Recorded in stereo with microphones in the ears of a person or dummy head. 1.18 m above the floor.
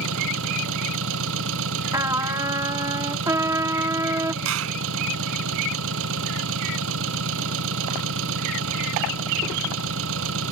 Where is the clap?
85° right.